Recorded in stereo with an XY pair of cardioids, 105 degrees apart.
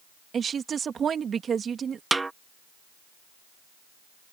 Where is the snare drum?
20° right.